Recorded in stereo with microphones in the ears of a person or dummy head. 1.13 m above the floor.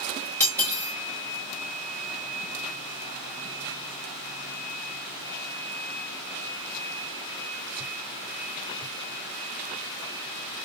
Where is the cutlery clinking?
20° left (ahead or behind), 1.5 m.